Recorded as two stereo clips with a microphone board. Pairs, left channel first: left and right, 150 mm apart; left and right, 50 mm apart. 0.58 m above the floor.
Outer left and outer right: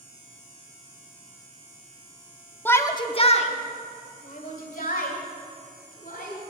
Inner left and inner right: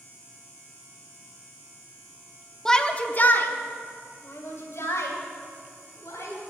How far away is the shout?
About 0.7 m.